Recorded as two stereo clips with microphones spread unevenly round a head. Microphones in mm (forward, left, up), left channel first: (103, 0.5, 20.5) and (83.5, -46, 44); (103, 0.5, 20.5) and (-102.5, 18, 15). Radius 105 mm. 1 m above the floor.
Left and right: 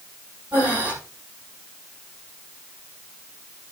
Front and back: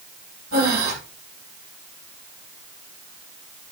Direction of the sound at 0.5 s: 165° right.